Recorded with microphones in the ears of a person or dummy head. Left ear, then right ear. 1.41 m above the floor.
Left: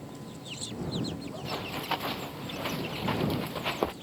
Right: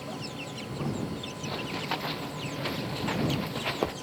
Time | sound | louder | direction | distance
1.4 | running footsteps | even | 5° left (ahead or behind) | ?